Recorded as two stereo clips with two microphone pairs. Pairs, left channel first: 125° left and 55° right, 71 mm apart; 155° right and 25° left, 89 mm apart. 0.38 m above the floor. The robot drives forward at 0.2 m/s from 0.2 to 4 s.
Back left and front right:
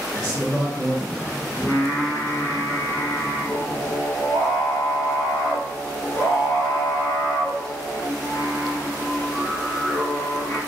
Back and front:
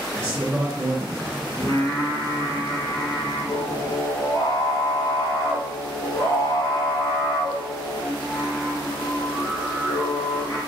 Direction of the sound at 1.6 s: 175° left.